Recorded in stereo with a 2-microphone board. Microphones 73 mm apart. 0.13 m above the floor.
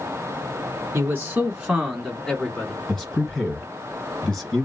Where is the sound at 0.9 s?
25° right (ahead or behind), 1.1 m; by 2.8 s 20° left (ahead or behind), 1.2 m.